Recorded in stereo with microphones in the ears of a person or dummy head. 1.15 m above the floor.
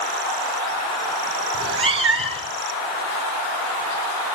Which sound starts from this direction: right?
A cat meowing, at 1.5 s.